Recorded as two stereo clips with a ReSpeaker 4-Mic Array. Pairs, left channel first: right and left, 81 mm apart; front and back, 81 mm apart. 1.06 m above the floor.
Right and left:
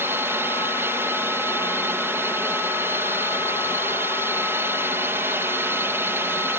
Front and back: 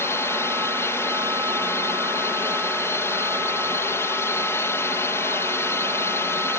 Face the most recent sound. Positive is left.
turn(degrees=40)